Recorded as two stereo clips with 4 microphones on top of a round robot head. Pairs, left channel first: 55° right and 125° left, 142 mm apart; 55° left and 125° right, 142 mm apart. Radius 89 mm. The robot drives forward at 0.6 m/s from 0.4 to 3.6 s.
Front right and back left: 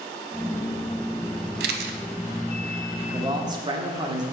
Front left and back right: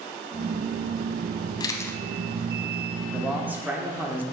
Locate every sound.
1.6 s a camera shutter: 115° left, 0.6 m; by 2.0 s 130° left, 0.8 m
3.1 s a man speaking: 155° left, 1.3 m; by 4.2 s 165° left, 1.4 m